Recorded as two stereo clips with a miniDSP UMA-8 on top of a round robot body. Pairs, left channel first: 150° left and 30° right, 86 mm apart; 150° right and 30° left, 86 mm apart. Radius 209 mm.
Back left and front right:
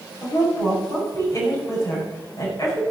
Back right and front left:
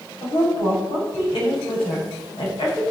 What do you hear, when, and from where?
0.2 s a woman speaking: 165° right, 6.5 m